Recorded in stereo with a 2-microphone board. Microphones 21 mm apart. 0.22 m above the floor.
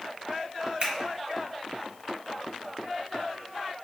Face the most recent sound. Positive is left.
turn(degrees=-40)  # may be behind; listen again after turning